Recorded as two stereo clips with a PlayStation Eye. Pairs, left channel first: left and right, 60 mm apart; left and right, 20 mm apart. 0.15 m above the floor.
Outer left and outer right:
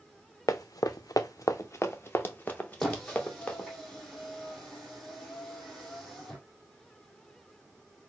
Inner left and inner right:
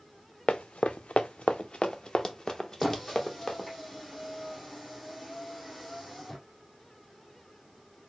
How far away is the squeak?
About 2 m.